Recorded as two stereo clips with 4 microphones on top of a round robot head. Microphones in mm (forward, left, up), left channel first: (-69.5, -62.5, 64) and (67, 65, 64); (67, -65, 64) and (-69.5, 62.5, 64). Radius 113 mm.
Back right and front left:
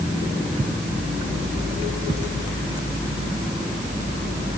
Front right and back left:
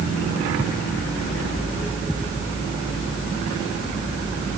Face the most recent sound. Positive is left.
No sound to turn to.